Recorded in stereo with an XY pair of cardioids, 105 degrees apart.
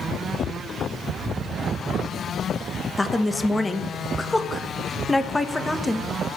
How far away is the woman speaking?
About 0.9 m.